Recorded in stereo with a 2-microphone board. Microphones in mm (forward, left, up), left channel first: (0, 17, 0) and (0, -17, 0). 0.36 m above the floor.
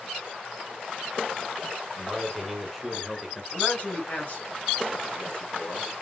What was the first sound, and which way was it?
A man speaking, 5° left (ahead or behind).